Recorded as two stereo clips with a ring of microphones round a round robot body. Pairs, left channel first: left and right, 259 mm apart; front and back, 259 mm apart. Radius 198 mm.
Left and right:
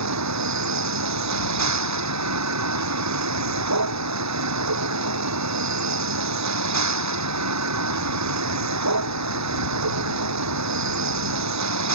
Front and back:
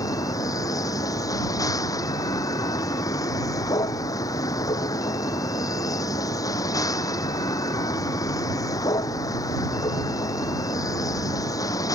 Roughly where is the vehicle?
Right.